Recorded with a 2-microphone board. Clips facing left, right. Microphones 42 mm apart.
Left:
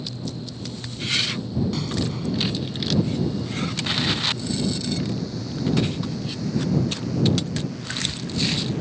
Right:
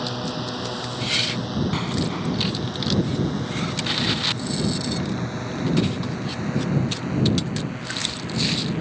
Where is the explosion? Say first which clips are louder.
Right 2 dB; 35° right (ahead or behind).